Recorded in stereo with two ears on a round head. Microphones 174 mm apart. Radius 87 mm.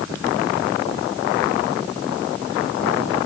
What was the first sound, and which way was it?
Only background noise.